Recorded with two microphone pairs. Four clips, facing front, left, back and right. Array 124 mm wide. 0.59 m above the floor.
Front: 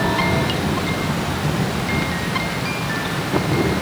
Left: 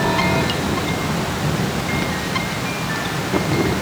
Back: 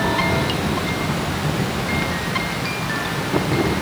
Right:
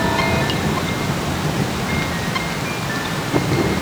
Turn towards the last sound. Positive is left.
No sound to turn to.